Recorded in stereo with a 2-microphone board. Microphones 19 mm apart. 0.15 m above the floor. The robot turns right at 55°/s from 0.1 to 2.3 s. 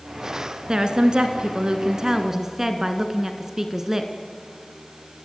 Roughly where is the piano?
No piano in this recording.